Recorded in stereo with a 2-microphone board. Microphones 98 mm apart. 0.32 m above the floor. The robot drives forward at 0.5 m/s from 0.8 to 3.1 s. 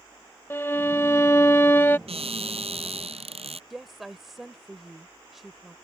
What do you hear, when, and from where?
0.5 s a violin: 25° left (ahead or behind); by 2.0 s 20° left (ahead or behind)
2.1 s a cupboard door: 80° right; by 3.6 s 85° right
3.7 s a woman speaking: centre (ahead or behind)